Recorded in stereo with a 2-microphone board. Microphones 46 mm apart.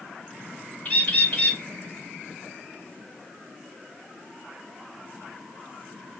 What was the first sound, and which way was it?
A bird, 35° left (ahead or behind).